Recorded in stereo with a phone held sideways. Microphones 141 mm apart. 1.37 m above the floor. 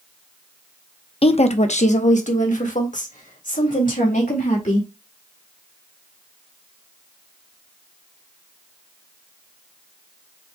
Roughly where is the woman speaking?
Left.